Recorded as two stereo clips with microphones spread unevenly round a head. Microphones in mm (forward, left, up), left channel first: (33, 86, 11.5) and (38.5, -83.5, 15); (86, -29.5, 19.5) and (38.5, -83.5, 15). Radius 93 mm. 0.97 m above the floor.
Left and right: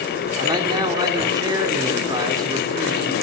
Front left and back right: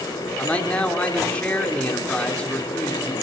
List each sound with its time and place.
0.4 s a man speaking: 25° right, 3.5 m